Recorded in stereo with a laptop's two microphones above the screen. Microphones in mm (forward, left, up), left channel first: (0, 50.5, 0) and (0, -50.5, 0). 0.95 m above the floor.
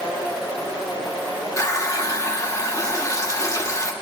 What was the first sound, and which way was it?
A running tap, 35° left (ahead or behind).